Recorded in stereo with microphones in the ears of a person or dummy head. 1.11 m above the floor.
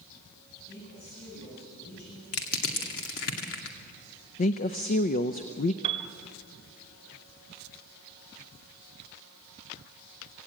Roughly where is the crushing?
Left.